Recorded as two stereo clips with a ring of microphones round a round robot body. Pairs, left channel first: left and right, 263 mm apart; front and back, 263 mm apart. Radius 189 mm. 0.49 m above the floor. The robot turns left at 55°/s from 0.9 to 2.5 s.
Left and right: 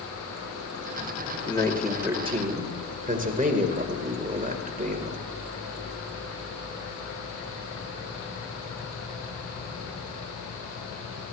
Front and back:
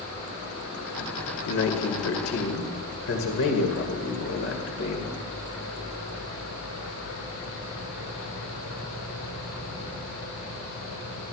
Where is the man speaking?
25° left, 2 m; by 5.3 s 35° right, 2 m.